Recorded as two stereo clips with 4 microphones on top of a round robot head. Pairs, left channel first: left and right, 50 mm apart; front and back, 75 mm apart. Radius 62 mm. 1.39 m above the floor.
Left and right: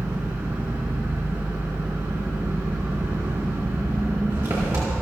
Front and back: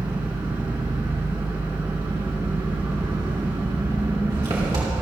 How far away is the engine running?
About 3 m.